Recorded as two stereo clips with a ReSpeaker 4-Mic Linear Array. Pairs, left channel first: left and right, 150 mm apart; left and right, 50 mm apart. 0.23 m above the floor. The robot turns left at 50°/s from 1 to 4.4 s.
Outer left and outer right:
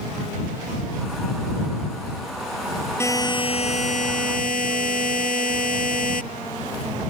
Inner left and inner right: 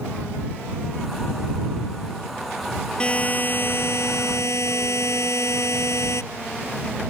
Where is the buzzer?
160° left; by 6.2 s 90° left.